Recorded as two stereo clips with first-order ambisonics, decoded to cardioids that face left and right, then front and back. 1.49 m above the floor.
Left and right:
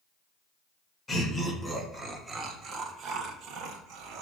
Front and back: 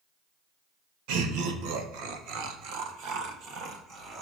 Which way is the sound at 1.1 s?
170° left.